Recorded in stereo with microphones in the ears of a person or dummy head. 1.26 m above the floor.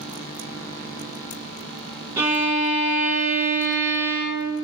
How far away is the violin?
About 0.8 m.